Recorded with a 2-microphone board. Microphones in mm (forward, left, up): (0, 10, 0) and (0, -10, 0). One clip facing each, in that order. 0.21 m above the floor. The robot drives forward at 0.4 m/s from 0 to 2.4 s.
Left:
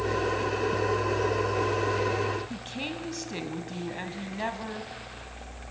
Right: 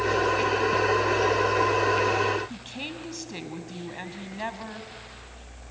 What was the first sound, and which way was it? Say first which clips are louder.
A woman speaking: left 1 dB; 5° right (ahead or behind).